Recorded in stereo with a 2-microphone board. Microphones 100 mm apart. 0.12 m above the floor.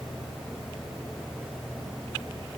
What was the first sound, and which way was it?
Only background noise.